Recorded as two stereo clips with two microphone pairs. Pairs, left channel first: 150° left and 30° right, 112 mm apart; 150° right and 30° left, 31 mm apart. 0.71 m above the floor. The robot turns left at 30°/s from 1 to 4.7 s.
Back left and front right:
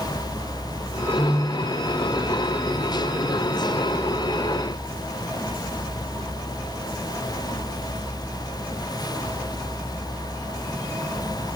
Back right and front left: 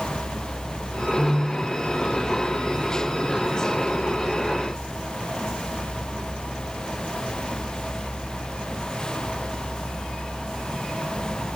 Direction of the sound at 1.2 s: 120° right.